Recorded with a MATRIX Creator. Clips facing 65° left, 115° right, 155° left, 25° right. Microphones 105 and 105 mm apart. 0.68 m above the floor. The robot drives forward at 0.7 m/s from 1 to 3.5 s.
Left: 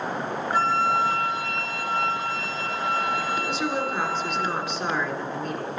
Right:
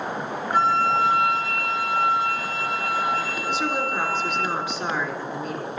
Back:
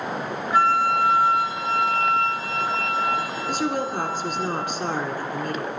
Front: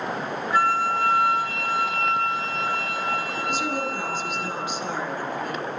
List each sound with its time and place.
0.5 s a flute: 135° right, 3 m; by 4.5 s 150° right, 4.5 m
3.5 s a woman speaking: 170° left, 2 m